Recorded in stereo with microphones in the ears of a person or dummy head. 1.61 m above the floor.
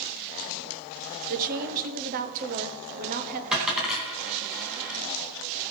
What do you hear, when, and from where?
1.3 s a woman speaking: 45° right (ahead or behind), 1.0 m
3.5 s a dropped coin: 5° right (ahead or behind), 3 m